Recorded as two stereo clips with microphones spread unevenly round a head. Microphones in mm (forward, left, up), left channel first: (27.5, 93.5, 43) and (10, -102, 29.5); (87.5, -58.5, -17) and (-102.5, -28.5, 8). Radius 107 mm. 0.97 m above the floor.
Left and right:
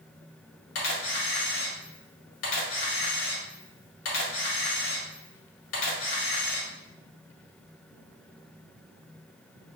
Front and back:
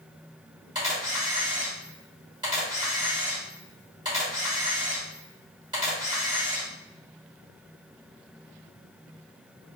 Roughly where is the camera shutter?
Left.